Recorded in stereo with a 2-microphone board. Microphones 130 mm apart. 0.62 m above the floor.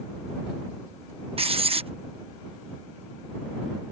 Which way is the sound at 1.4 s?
45° right (ahead or behind).